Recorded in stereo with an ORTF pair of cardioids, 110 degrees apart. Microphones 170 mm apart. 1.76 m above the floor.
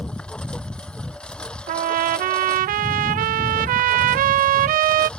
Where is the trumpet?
60° right.